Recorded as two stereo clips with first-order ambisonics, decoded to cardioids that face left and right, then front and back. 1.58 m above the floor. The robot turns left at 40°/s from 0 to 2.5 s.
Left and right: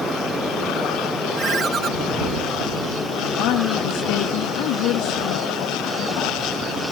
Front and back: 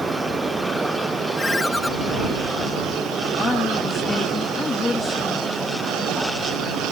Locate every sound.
1.4 s a ringtone: 60° right; by 1.9 s 85° right
3.2 s a woman speaking: 75° left